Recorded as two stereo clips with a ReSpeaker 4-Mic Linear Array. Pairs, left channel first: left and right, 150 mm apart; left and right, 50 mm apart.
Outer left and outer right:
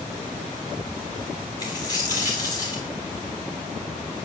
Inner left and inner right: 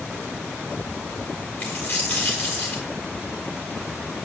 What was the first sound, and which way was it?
A dropped coin, 25° left (ahead or behind).